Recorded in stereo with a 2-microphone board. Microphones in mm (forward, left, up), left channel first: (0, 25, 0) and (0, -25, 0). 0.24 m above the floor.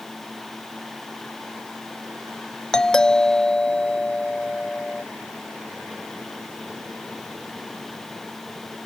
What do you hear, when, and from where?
2.7 s a doorbell: 10° left (ahead or behind)